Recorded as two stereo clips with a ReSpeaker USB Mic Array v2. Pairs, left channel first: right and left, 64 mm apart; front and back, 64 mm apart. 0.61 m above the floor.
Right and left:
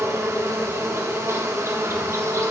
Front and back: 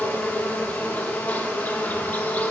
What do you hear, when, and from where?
0.0 s an insect: 60° left, 0.8 m